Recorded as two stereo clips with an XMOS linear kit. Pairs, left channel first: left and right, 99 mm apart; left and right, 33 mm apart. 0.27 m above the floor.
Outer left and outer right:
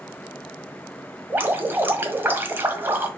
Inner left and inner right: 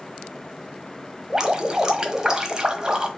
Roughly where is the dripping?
Right.